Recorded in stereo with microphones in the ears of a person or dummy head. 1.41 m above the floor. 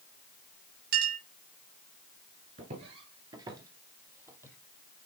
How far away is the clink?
About 3.5 m.